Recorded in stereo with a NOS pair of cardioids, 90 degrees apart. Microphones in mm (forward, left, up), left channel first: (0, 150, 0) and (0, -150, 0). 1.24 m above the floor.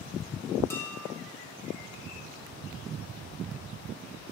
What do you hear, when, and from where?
0.7 s dishes clattering: 10° left, 2 m